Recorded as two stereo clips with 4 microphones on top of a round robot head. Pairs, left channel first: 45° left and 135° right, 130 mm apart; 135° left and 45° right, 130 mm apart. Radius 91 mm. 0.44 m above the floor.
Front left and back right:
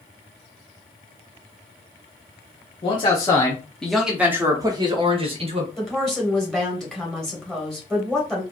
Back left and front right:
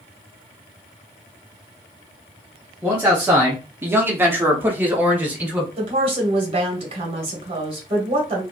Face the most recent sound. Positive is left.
turn(degrees=-40)